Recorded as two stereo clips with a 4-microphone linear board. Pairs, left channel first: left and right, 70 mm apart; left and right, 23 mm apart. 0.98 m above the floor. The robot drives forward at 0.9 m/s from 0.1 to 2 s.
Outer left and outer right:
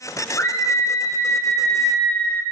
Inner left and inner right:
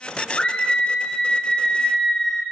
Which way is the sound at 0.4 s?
45° left (ahead or behind).